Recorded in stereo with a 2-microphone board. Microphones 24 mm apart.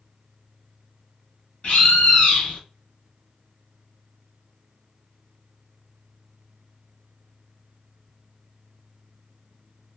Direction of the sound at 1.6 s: 60° left (ahead or behind).